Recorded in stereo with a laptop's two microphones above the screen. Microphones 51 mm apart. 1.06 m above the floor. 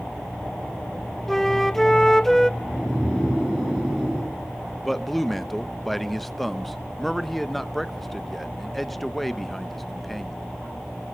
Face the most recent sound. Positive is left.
turn(degrees=5)  # may be behind; listen again after turning